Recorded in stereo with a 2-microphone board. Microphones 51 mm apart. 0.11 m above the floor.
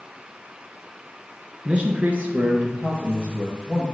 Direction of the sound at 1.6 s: 25° right (ahead or behind).